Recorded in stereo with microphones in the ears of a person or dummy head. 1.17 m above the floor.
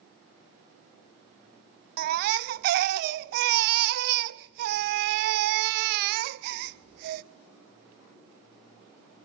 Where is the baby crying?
45° right (ahead or behind), 0.6 m.